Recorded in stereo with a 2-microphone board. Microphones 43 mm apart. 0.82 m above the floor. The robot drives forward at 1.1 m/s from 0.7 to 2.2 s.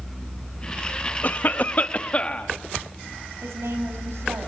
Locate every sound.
1.2 s a cough: 45° left (ahead or behind), 1.0 m; by 2.5 s 30° left (ahead or behind), 1.5 m
3.4 s a woman speaking: 80° right, 6 m